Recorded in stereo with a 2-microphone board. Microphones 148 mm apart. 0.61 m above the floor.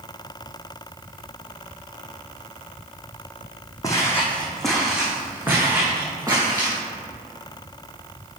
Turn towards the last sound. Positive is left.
turn(degrees=-25)  # may be behind; listen again after turning